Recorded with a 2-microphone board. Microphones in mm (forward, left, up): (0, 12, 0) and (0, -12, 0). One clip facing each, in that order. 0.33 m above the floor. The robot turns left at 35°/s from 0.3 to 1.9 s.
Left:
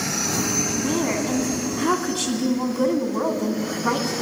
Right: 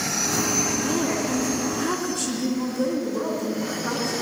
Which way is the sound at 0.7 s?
160° left.